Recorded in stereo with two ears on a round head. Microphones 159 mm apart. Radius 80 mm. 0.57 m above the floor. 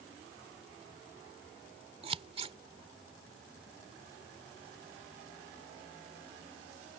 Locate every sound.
2.0 s scissors: 35° right (ahead or behind)